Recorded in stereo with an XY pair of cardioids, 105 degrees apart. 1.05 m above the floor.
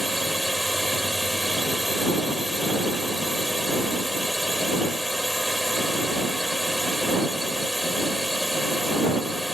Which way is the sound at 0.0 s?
Straight ahead.